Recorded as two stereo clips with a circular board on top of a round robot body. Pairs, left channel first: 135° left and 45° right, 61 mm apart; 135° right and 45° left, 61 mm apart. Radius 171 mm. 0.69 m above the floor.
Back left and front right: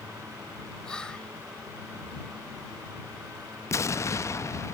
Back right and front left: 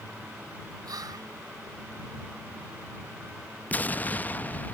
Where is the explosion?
165° left.